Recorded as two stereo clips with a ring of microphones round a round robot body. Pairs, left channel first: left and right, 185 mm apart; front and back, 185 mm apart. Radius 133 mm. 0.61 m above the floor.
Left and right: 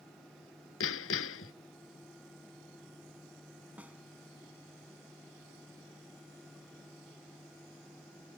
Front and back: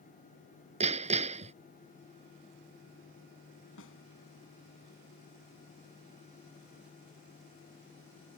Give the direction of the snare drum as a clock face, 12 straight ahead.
12 o'clock.